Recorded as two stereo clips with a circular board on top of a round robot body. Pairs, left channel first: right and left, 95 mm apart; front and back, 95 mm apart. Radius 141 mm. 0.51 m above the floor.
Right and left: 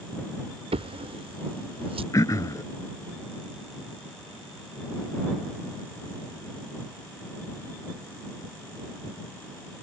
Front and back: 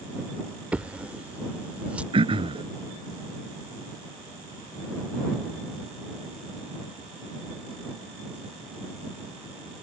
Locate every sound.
0.7 s a drawer: 105° left
2.1 s throat clearing: 145° right